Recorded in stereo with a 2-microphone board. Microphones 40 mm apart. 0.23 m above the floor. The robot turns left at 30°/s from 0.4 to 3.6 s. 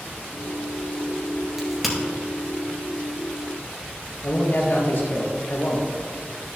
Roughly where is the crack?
Centre.